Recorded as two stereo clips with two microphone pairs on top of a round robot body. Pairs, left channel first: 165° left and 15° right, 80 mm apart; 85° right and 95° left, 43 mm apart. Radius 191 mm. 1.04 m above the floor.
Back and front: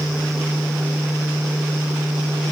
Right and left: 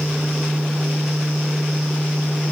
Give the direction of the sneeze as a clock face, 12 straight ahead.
I don't hear a sneeze.